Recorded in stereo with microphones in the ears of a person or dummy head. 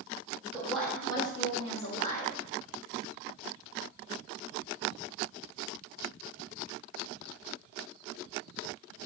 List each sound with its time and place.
0.5 s a woman speaking: 10° right (ahead or behind), 1.0 m; by 2.3 s 40° left (ahead or behind), 2 m